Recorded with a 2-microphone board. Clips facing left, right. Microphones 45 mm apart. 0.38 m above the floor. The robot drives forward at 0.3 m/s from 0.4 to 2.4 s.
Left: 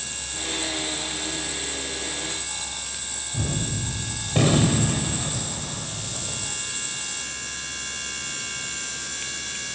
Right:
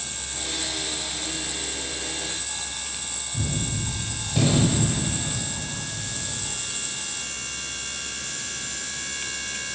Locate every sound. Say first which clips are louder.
3.3 s a gunshot: left 1 dB; 45° left (ahead or behind), 0.8 m